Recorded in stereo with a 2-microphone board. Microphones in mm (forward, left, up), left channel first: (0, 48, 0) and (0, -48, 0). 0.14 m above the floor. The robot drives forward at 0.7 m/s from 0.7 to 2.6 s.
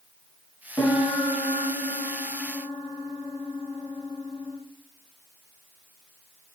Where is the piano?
20° left (ahead or behind), 5 m; by 4.6 s 25° left (ahead or behind), 3.5 m.